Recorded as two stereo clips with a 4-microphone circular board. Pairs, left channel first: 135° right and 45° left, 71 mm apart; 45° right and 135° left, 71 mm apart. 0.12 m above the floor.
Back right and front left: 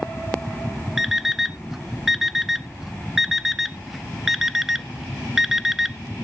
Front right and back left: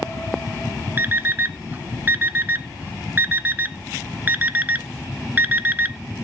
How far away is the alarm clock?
About 0.5 m.